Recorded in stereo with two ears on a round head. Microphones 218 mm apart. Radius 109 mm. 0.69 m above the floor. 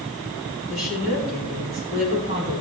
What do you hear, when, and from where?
0.7 s a woman speaking: 40° right (ahead or behind), 7 m